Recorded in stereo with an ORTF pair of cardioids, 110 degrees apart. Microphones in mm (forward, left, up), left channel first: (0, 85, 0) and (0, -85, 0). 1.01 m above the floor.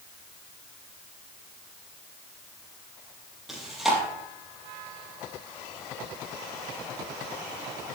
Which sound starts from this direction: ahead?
Chewing, at 3.5 s.